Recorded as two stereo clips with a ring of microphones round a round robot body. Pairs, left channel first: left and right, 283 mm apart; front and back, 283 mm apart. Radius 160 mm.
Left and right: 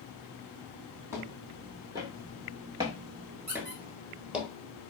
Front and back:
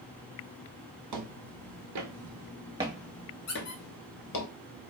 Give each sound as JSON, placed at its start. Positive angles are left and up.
{"t": 1.1, "sound": "footsteps", "azimuth_deg": -170, "distance_m": 1.2}
{"t": 3.5, "sound": "a squeak", "azimuth_deg": -35, "distance_m": 1.6}